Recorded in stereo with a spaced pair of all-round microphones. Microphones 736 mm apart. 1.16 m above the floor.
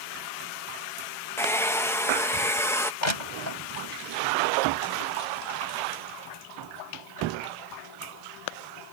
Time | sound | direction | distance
1.4 | a hair dryer | 5° left (ahead or behind) | ?
3.0 | crushing | 75° left (ahead or behind) | ?